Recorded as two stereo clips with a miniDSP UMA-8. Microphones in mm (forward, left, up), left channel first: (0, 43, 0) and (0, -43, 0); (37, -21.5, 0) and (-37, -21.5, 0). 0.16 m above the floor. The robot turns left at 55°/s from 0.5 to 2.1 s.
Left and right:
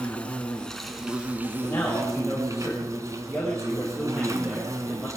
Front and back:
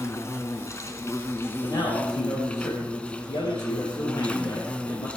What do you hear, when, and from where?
0.0 s an insect: 20° left, 1.5 m; by 5.2 s 65° right, 1.5 m
1.6 s a man speaking: 25° left, 5.5 m; by 5.1 s straight ahead, 5.5 m